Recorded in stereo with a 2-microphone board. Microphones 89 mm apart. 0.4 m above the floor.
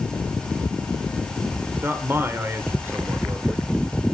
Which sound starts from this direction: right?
A man speaking, at 1.8 s.